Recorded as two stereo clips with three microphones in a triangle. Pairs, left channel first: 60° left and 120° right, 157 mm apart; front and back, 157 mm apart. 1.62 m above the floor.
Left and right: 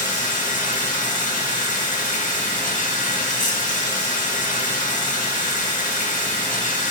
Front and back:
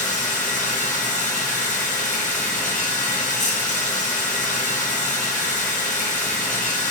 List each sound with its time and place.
0.0 s running water: 35° left, 1.5 m